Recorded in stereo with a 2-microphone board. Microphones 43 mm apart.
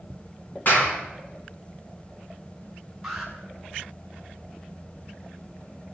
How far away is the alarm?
About 5 m.